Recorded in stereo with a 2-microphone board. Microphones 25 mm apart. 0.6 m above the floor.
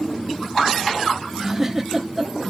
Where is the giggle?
5° right (ahead or behind), 1.0 m.